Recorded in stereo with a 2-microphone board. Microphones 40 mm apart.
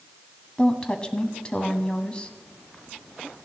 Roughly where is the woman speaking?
Left.